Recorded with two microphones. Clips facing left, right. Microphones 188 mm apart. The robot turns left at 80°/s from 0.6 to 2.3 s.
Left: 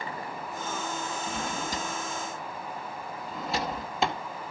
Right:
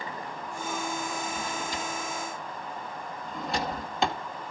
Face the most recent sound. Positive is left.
turn(degrees=0)  # may be behind; listen again after turning